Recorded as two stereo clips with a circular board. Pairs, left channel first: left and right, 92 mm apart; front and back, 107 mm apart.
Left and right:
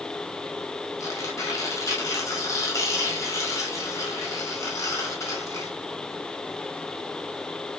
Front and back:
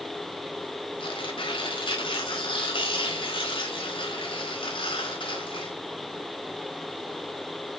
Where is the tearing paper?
35° left, 5 m.